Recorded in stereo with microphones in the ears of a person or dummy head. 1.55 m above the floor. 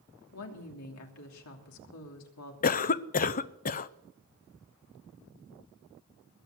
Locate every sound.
0.3 s a woman speaking: 80° left, 3 m
2.6 s a cough: 35° left (ahead or behind), 0.7 m